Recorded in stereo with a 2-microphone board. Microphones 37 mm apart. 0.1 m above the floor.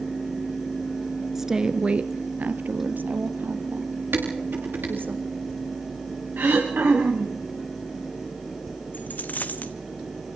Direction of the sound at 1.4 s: 5° right (ahead or behind).